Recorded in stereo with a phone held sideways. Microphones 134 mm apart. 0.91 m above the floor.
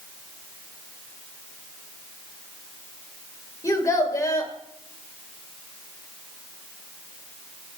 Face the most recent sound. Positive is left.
turn(degrees=25)  # may be behind; listen again after turning